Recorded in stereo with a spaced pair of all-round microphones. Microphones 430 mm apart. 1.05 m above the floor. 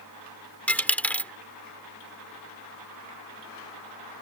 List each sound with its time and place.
0.7 s a dropped coin: 5° left (ahead or behind)